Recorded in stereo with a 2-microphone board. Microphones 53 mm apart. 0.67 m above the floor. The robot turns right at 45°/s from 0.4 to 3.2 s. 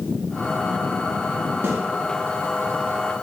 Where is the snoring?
No snoring in this recording.